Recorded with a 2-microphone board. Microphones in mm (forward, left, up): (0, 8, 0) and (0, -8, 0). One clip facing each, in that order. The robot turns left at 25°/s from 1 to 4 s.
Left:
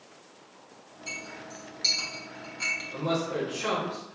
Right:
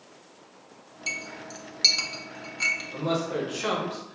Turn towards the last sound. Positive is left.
turn(degrees=-35)  # may be behind; listen again after turning